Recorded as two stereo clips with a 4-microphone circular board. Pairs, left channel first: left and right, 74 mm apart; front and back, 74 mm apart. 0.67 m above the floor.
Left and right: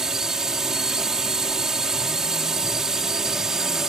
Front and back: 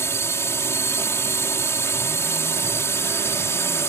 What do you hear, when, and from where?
0.0 s a drone: 10° right